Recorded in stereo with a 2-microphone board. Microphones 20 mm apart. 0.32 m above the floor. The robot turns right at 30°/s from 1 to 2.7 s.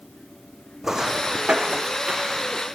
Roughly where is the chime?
No chime in this recording.